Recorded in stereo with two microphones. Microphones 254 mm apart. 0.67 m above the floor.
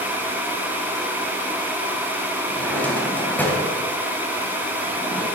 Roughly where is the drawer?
Centre.